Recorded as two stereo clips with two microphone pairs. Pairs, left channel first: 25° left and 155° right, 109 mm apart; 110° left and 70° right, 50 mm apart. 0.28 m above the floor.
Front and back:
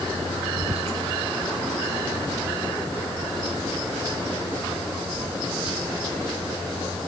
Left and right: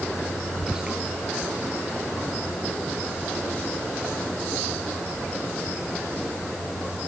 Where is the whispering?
145° right.